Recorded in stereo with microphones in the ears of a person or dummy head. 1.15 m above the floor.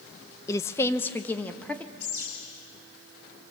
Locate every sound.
0.5 s a woman speaking: 15° left (ahead or behind), 0.6 m; by 1.9 s 10° left (ahead or behind), 1.5 m
2.0 s a bird: 60° left (ahead or behind), 6.5 m